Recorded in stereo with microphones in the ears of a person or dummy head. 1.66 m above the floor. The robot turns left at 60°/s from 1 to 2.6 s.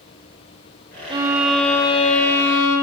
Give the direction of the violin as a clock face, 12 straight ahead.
5 o'clock.